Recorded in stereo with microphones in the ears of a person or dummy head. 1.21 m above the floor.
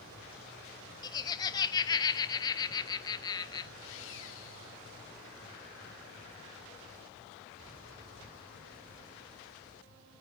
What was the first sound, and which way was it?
Laughter, 25° left (ahead or behind).